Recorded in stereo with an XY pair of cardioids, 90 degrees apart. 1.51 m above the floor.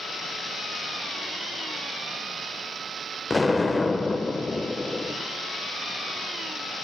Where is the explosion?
25° left, 1.1 m.